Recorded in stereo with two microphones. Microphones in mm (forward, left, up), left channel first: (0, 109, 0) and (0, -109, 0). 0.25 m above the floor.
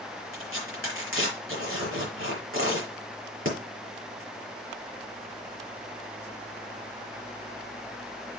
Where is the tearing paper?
75° right (ahead or behind), 6 m.